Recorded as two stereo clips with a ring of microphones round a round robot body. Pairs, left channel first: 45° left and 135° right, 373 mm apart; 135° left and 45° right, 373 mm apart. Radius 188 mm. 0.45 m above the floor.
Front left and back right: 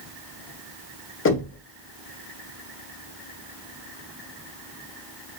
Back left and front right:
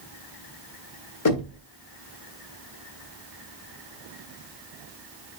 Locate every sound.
1.2 s knocking: 95° left, 1.6 m